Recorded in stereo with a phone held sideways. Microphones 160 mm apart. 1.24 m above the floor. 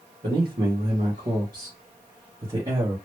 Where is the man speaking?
80° right, 1.7 m; by 3.0 s 20° right (ahead or behind), 1.4 m.